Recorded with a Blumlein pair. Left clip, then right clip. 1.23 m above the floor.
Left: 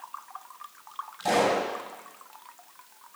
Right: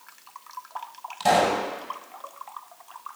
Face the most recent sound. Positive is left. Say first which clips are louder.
# right 3 dB
turn(degrees=-70)